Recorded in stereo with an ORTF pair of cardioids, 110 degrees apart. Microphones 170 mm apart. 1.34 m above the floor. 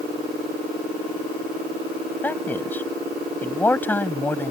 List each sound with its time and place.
2.2 s a man speaking: 10° left